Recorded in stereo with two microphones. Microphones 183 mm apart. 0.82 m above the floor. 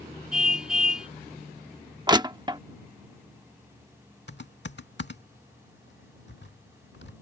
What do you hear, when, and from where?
0.3 s a car horn: 5° right (ahead or behind)
2.1 s crushing: 25° right (ahead or behind)
4.3 s typing on a keyboard: 75° left (ahead or behind)